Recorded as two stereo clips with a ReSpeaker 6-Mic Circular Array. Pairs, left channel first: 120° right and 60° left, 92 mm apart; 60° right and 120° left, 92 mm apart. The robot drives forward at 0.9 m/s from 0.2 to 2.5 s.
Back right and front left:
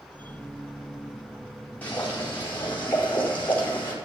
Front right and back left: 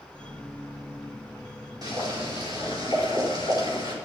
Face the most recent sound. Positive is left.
turn(degrees=170)